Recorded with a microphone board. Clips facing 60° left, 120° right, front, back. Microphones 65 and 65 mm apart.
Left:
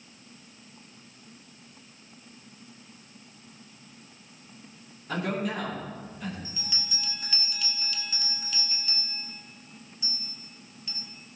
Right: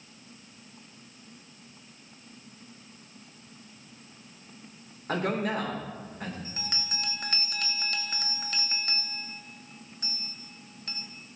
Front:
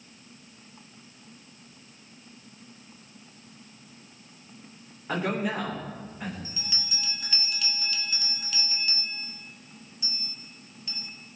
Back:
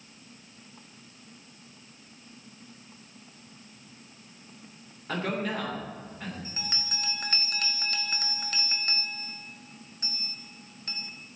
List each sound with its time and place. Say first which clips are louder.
5.1 s a man speaking: right 2 dB, front 2 dB; 80° right, 3.5 m
6.5 s a bell: right 2 dB, back 2 dB; 145° right, 0.7 m